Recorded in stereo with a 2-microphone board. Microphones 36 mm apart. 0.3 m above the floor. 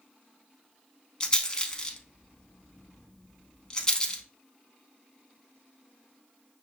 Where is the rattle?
25° left (ahead or behind), 0.5 m.